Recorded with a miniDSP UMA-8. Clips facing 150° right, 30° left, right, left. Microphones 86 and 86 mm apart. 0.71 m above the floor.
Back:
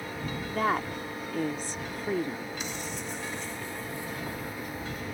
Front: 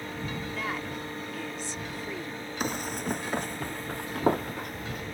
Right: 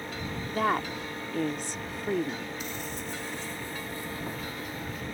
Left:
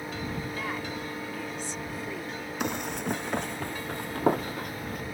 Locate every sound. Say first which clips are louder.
0.5 s a woman speaking: back 10 dB, right 6 dB; 110° right
2.6 s running footsteps: front 4 dB, left 6 dB; 70° left; by 5.0 s 60° left